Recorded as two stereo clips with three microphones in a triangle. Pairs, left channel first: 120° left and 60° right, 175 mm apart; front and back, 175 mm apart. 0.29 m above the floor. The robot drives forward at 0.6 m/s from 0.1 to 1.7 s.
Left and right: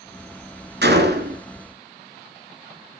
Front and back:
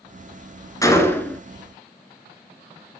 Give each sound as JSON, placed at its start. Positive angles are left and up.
{"t": 0.8, "sound": "a gunshot", "azimuth_deg": -70, "distance_m": 1.6}